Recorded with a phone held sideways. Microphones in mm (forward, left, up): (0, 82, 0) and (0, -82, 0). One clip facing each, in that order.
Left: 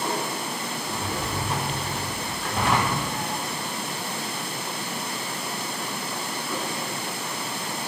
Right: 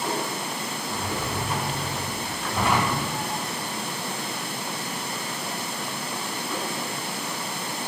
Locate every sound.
0.9 s a drawer: 25° left (ahead or behind), 3 m